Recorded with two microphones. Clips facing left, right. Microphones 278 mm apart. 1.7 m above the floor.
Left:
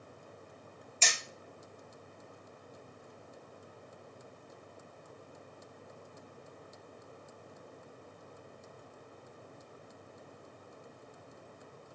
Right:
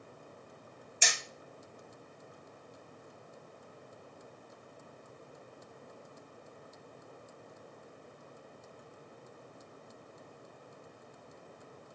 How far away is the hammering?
About 0.7 m.